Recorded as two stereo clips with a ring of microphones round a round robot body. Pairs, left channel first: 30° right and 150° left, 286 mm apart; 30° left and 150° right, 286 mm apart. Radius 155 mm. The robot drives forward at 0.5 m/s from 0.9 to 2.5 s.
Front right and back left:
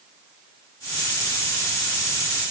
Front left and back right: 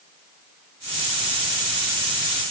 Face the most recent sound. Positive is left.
No sound to turn to.